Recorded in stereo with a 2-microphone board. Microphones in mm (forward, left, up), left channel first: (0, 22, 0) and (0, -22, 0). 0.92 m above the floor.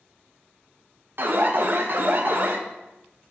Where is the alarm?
50° right (ahead or behind), 0.7 m.